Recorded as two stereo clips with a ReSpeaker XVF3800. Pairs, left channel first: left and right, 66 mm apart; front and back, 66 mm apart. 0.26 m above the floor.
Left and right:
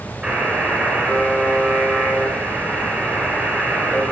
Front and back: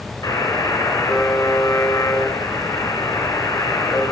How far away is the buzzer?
About 2.5 m.